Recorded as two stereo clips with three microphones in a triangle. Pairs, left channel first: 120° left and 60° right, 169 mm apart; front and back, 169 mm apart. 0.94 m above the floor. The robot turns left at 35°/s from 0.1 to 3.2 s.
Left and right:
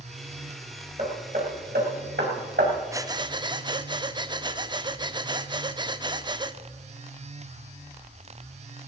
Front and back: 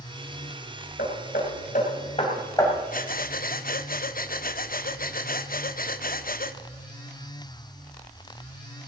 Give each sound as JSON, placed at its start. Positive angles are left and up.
{"t": 1.0, "sound": "hammering", "azimuth_deg": -15, "distance_m": 3.5}
{"t": 2.9, "sound": "breathing", "azimuth_deg": 10, "distance_m": 0.6}